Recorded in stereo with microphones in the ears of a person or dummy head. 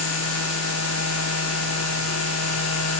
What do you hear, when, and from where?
0.0 s a machine running: 85° left